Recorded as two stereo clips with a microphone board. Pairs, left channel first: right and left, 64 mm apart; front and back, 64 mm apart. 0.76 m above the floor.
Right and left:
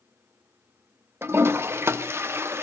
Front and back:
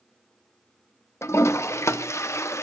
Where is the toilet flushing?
40° left, 0.7 m.